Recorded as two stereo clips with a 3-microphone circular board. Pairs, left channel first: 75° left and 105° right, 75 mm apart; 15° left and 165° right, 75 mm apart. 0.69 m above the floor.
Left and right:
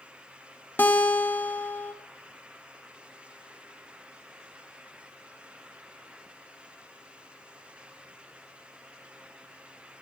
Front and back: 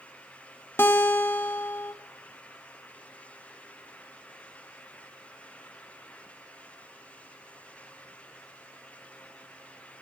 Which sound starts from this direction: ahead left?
A guitar, at 0.8 s.